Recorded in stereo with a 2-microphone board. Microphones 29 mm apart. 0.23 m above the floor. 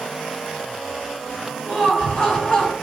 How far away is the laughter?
About 2.5 m.